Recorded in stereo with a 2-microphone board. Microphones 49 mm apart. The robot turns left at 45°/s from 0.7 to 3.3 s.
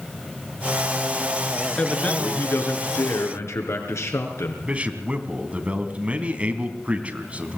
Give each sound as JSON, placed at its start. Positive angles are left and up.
{"t": 1.8, "sound": "a man speaking", "azimuth_deg": 165, "distance_m": 4.5}
{"t": 4.6, "sound": "a man speaking", "side_deg": -25, "distance_m": 3.0}